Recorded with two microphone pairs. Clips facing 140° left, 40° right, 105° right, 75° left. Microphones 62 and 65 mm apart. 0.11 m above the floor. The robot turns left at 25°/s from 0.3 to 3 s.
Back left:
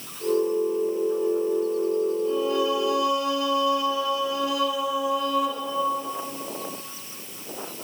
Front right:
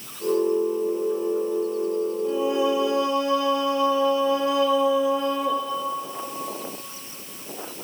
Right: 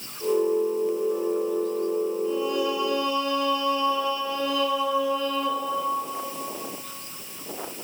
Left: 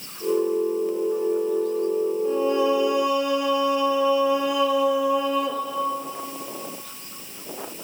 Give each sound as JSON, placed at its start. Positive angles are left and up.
{"t": 2.2, "sound": "singing", "azimuth_deg": 30, "distance_m": 1.1}